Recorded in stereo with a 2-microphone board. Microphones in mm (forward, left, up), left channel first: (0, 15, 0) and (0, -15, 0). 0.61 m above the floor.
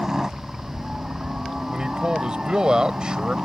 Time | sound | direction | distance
0.0 | a helicopter | 20° right (ahead or behind) | ?
1.7 | a man speaking | 30° right (ahead or behind) | ?